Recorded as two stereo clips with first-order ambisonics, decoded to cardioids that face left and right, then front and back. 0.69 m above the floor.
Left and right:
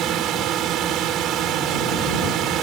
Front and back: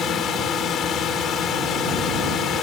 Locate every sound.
0.0 s a drone: 50° right